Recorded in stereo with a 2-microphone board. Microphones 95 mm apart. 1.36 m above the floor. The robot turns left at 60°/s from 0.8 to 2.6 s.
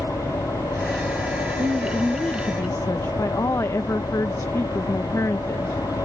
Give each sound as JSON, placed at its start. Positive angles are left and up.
{"t": 0.0, "sound": "an engine running", "azimuth_deg": 150}
{"t": 1.6, "sound": "a woman speaking", "azimuth_deg": -155}